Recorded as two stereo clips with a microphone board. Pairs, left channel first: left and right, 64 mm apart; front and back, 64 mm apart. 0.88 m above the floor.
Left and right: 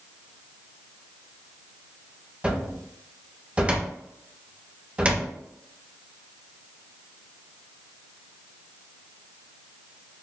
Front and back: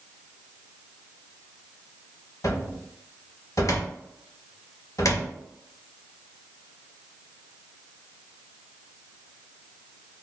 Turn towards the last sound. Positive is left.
turn(degrees=-25)